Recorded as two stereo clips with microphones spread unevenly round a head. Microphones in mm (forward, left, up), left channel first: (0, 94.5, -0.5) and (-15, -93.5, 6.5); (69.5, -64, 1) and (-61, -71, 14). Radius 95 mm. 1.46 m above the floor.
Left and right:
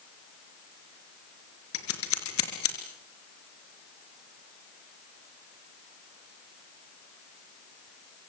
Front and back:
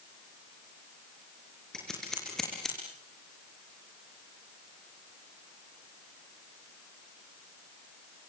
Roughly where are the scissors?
Left.